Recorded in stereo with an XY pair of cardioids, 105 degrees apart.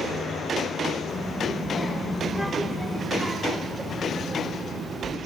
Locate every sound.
1.1 s a child speaking: 15° left, 4.5 m; by 5.2 s 40° right, 2.5 m